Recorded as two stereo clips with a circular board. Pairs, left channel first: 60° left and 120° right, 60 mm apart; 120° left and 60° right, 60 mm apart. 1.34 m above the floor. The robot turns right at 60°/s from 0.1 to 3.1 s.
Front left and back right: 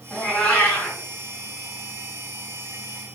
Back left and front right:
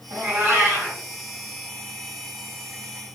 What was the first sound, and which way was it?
A cat meowing, 30° right.